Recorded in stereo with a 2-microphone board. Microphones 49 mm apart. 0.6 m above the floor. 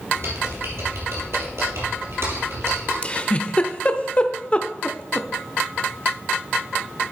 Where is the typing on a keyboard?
65° right (ahead or behind), 3 m.